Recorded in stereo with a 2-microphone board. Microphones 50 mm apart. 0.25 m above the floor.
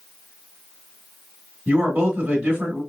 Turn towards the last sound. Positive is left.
turn(degrees=-15)  # may be behind; listen again after turning